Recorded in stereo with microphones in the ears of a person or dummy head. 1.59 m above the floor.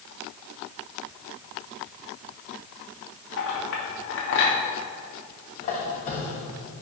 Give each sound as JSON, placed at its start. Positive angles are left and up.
{"t": 3.4, "sound": "a clink", "side_deg": 65, "distance_m": 1.9}
{"t": 5.6, "sound": "a squeak", "side_deg": 35, "distance_m": 1.1}